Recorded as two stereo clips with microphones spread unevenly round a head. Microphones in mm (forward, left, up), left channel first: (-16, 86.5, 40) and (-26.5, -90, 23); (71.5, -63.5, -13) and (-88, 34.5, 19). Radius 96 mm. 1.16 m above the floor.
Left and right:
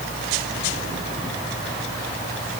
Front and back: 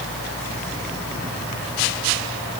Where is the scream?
No scream in this recording.